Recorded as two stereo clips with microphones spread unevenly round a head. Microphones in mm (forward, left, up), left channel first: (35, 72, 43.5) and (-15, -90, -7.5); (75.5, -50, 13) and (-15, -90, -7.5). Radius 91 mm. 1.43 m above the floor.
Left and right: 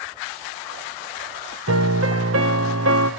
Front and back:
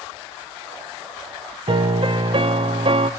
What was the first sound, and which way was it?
A piano, 125° right.